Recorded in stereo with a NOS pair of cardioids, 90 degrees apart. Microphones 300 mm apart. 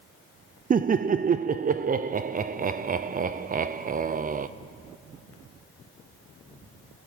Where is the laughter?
30° right, 0.7 m.